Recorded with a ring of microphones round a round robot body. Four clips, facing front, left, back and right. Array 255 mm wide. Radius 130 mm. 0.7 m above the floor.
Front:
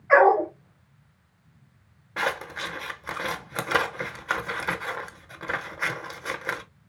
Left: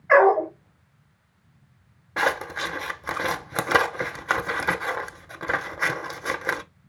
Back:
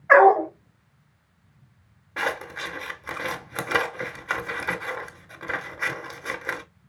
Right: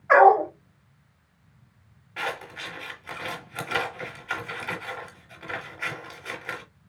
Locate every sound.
0.1 s a dog barking: 165° right, 2.5 m
2.2 s scissors: 90° left, 0.6 m